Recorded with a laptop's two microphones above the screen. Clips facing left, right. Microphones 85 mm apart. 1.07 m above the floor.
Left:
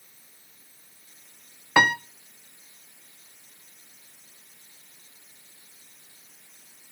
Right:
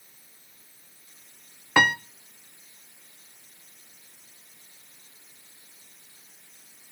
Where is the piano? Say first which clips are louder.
Left 1 dB; 10° left (ahead or behind), 0.5 m.